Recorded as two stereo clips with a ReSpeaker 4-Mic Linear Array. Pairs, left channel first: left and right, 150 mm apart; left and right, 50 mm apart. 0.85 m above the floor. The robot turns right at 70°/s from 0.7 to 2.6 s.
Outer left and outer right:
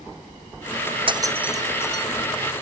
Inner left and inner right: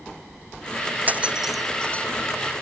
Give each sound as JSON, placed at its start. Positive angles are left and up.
{"t": 1.1, "sound": "breaking glass", "side_deg": -35}